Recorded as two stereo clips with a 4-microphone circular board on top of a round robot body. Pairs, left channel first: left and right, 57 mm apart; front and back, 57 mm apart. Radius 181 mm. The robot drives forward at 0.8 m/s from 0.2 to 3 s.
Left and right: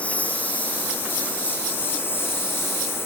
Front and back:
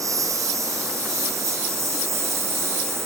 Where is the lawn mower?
155° left; by 3.1 s 135° left.